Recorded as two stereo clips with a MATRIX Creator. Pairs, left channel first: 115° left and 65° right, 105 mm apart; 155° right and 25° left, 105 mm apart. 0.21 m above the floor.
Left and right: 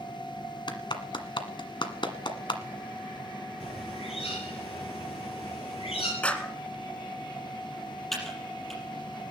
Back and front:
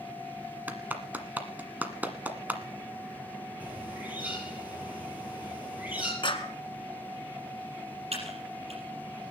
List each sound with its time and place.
0.7 s a clap: 90° left, 1.4 m
3.6 s a bird: 95° left, 5.5 m
6.2 s a clap: 170° right, 1.7 m
8.1 s typing on a keyboard: 25° left, 5 m